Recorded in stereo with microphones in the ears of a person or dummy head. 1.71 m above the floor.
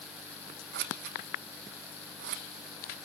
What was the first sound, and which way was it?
Scissors, 55° right (ahead or behind).